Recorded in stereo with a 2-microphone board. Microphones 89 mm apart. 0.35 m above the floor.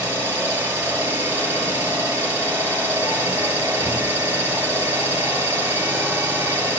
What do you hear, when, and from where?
0.0 s an engine running: 20° right (ahead or behind), 4.5 m